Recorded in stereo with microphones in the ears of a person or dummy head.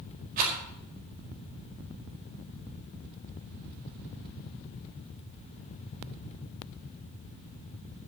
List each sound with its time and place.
0.4 s a rattle: 50° right (ahead or behind), 5.5 m